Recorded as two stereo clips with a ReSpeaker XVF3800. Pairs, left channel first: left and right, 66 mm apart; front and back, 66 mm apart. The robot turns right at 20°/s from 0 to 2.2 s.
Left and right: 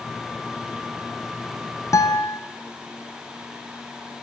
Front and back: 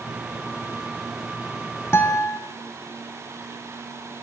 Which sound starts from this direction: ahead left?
A guitar, at 1.9 s.